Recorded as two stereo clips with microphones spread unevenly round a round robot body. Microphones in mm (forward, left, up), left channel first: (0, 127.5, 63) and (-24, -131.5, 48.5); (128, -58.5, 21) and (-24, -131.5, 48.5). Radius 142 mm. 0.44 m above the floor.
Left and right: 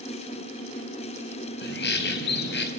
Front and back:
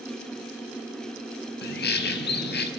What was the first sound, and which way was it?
A bird, 35° left.